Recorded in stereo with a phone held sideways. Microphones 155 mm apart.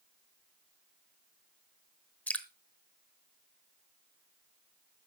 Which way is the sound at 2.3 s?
10° left (ahead or behind).